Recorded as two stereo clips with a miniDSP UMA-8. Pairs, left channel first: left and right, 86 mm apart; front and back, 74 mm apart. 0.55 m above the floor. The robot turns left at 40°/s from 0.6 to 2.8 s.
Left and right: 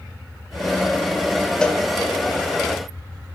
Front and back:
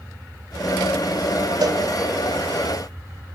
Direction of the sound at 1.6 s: 170° left.